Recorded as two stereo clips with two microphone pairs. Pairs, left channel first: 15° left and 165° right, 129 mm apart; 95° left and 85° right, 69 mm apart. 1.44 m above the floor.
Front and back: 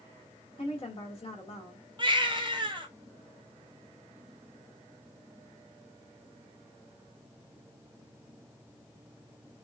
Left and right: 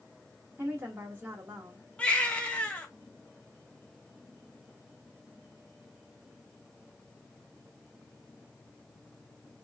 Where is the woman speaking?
30° right, 2 m.